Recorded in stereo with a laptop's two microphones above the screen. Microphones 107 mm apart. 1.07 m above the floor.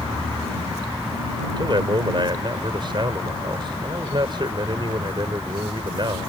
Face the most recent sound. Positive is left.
turn(degrees=-45)  # may be behind; listen again after turning